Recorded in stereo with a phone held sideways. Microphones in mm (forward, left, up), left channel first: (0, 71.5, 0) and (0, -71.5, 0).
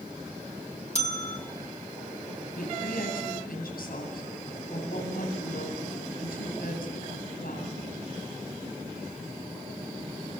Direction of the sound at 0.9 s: 50° left (ahead or behind).